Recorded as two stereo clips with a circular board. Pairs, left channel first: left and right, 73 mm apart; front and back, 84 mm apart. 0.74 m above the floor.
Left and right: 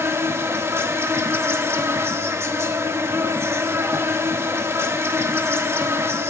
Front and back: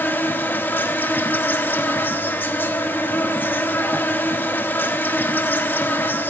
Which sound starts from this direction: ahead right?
An insect, at 0.0 s.